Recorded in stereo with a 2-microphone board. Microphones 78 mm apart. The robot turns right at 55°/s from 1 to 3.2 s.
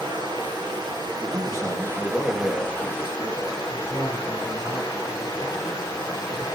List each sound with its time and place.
0.0 s running water: 80° right, 3.5 m; by 6.6 s 40° left, 3.5 m
1.2 s a man speaking: 55° right, 4 m; by 3.6 s 55° left, 4 m
3.7 s a man speaking: 60° left (ahead or behind), 5 m